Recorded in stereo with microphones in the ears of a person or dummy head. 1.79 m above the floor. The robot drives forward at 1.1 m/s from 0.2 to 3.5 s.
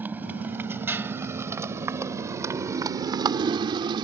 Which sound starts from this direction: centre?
A motorcycle, at 0.0 s.